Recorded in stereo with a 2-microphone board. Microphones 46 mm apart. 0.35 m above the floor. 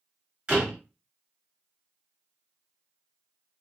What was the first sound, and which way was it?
A door slam, 25° right (ahead or behind).